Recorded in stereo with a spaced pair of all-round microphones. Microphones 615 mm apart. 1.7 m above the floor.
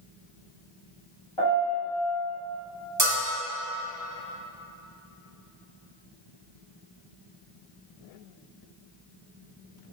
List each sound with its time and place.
1.4 s a piano: 50° left (ahead or behind), 1.9 m
3.0 s a bell: 30° right (ahead or behind), 1.5 m